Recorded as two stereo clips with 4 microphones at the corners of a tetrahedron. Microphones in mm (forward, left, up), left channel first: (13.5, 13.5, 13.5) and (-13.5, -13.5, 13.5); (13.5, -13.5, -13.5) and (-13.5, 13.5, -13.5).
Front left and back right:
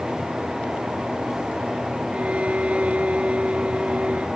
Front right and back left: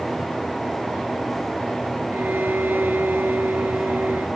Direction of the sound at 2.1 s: 165° left.